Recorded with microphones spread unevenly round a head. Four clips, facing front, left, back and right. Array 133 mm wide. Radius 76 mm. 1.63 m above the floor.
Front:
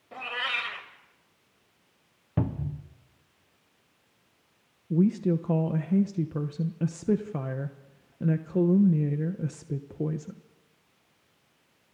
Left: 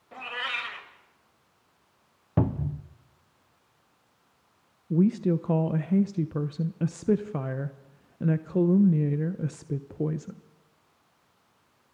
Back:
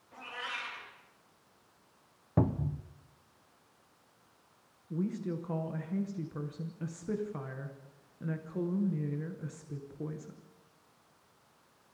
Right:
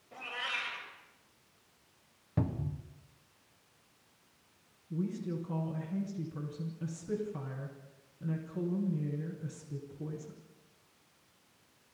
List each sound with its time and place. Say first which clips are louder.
0.1 s a cat meowing: left 6 dB, front 8 dB; 15° left, 3.5 m
2.4 s a cupboard door: left 8 dB, back 1 dB; 125° left, 0.8 m
4.9 s a woman speaking: left 13 dB, front 11 dB; 65° left, 1.0 m